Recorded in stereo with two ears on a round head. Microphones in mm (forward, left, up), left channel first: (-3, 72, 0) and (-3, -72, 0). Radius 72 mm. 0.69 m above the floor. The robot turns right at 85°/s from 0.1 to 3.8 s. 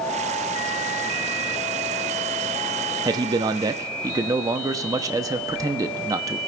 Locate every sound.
3.0 s a man speaking: 20° right (ahead or behind), 0.7 m